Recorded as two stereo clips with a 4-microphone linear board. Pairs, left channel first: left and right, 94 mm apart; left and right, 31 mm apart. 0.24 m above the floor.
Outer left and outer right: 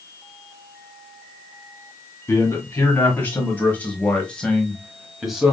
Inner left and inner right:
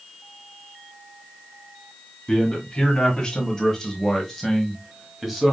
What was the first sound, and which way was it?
A man speaking, 20° left (ahead or behind).